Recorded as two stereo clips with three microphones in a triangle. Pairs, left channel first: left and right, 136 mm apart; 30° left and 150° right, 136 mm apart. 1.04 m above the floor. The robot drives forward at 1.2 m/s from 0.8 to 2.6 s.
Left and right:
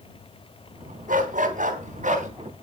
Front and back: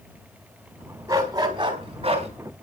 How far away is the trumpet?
I don't hear a trumpet.